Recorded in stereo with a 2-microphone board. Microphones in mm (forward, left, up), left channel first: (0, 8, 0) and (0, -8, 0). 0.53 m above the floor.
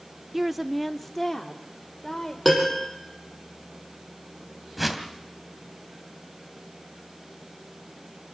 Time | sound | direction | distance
0.3 | a woman speaking | 20° right (ahead or behind) | 0.7 m
2.5 | a piano | 5° right (ahead or behind) | 5 m
4.8 | a whoosh | 10° right (ahead or behind) | 2 m